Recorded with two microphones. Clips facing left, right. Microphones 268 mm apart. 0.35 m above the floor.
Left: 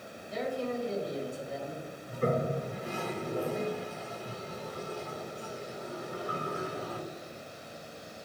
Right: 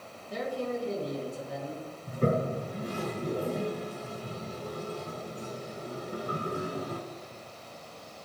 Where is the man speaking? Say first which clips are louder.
Right 1 dB; 65° right (ahead or behind), 3 m; by 1.8 s 70° right (ahead or behind), 3 m.